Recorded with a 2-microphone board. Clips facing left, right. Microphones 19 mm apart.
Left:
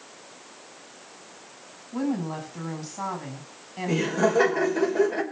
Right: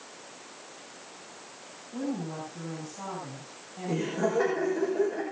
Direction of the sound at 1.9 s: 80° left.